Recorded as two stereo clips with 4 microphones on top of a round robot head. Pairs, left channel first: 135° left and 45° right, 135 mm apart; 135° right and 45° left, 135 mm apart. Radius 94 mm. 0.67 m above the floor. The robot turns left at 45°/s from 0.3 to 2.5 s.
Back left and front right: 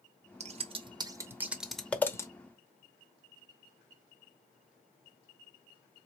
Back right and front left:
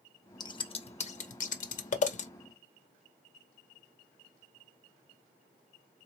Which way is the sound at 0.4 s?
75° right.